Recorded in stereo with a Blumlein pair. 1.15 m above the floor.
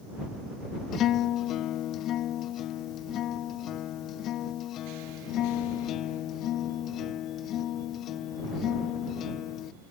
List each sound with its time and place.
0.9 s a guitar: 30° left